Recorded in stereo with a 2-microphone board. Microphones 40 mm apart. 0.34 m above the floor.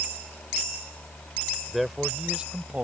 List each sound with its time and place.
1.7 s a man speaking: centre (ahead or behind); by 2.8 s 35° right (ahead or behind)